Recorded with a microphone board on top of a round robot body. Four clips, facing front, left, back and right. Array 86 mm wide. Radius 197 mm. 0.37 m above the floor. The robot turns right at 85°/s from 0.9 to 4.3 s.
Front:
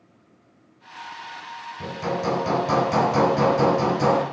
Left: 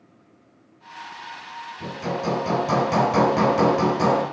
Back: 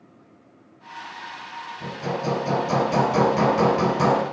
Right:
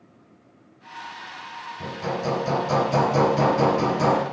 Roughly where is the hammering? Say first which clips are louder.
Left 1 dB, front 2 dB; ahead right.